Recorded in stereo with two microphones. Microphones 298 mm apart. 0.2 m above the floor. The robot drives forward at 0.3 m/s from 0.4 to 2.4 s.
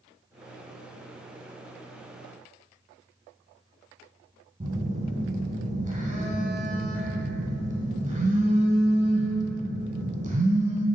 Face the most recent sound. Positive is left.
turn(degrees=-25)  # may be behind; listen again after turning